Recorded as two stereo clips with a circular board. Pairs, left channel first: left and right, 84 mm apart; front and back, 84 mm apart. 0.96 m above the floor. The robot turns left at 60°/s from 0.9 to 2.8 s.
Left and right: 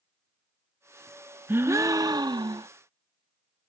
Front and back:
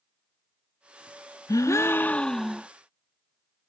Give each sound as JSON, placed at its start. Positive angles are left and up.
{"t": 1.5, "sound": "a gasp", "azimuth_deg": -30}